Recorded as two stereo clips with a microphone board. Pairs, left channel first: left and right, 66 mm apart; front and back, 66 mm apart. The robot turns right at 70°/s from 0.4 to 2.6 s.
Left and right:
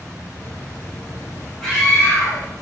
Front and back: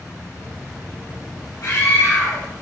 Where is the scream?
10° left, 3 m; by 2.5 s 70° left, 3 m.